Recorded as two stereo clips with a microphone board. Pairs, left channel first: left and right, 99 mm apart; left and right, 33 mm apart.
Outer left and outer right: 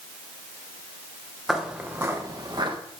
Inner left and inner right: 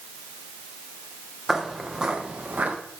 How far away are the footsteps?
About 1.7 m.